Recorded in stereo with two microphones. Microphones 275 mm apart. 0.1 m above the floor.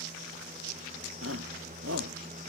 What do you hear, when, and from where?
1.2 s a shout: 50° right (ahead or behind)